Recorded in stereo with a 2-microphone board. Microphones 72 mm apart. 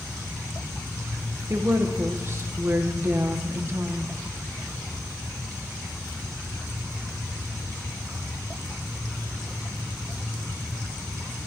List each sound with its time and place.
1.5 s a woman speaking: 40° right (ahead or behind), 1.0 m